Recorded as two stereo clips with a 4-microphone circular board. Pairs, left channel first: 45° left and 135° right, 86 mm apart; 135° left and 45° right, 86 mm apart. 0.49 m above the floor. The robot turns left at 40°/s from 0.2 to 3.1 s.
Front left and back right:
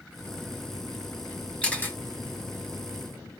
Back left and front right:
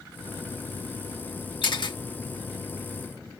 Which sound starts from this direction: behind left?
A camera shutter, at 1.6 s.